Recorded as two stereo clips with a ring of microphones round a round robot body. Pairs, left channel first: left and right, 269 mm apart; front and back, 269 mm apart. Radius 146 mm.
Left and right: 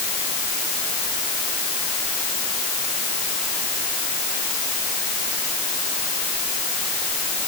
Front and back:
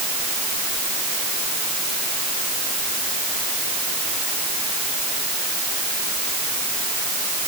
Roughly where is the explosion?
No explosion in this recording.